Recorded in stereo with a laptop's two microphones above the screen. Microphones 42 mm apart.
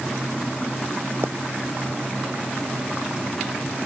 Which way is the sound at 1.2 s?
70° right (ahead or behind).